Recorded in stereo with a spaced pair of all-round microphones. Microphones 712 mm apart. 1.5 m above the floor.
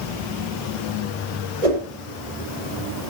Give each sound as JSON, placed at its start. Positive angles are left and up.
{"t": 1.6, "sound": "a whoosh", "side_deg": -65, "distance_m": 6.5}